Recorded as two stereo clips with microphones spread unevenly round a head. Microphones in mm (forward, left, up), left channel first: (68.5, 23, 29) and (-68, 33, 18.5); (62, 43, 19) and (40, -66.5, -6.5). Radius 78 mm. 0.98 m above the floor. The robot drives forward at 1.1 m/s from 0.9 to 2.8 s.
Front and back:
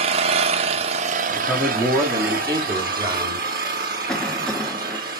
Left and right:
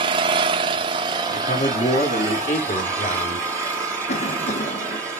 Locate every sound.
0.0 s an engine running: 145° right, 0.8 m; by 5.2 s 170° right, 2.5 m
1.3 s a man speaking: 85° left, 2.5 m; by 3.5 s 125° left, 2.5 m
4.1 s a cough: 85° left, 1.1 m